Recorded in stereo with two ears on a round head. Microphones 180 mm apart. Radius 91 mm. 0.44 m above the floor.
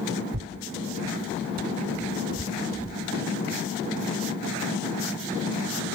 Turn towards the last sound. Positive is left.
turn(degrees=-45)  # may be behind; listen again after turning